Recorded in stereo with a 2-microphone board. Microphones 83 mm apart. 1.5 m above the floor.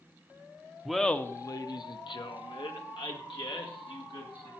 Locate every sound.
0.8 s laughter: 5° right (ahead or behind), 0.7 m; by 4.5 s 85° left, 3 m